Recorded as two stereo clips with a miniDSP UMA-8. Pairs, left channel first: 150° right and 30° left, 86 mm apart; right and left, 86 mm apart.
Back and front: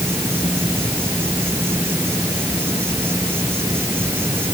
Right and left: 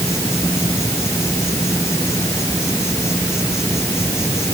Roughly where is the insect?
Ahead right.